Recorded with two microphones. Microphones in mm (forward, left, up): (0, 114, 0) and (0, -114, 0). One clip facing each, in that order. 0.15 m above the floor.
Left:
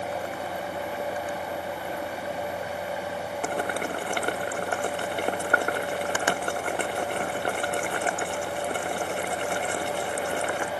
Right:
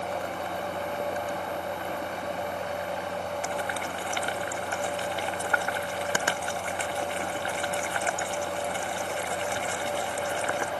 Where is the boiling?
60° left (ahead or behind).